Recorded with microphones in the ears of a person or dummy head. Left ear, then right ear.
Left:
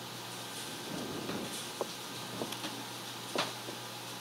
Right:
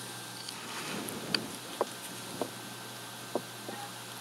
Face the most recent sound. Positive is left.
turn(degrees=-60)  # may be behind; listen again after turning